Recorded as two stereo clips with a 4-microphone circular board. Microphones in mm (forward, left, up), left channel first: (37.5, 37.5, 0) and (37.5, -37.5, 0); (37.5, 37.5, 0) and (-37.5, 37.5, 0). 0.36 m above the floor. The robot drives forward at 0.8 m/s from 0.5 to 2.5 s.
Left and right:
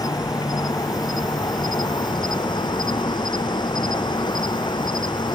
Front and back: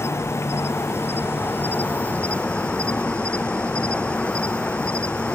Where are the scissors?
No scissors in this recording.